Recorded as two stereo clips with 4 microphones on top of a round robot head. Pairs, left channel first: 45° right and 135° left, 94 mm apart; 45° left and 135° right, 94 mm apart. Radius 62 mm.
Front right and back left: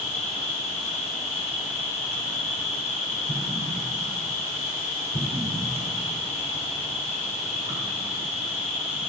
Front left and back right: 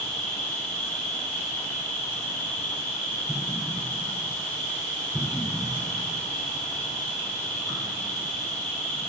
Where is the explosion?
60° right, 1.8 m.